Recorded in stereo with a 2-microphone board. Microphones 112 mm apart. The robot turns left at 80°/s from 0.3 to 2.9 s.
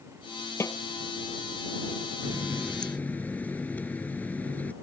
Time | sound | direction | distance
0.6 | a snare drum | 25° left (ahead or behind) | ?
2.2 | a running tap | 140° right | ?